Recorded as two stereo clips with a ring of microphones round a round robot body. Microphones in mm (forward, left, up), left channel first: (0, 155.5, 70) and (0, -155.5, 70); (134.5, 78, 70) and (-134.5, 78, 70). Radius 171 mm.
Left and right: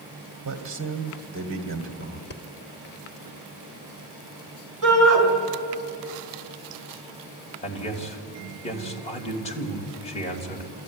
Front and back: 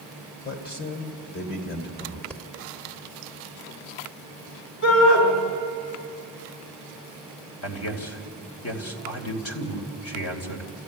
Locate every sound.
0.5 s a man speaking: 50° right, 2 m
2.3 s breathing: 85° left, 1.4 m
4.8 s a shout: 50° right, 4 m
7.6 s a man speaking: 20° left, 3 m